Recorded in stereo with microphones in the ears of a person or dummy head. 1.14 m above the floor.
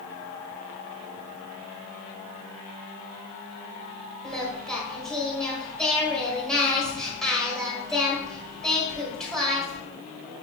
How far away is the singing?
About 1.1 m.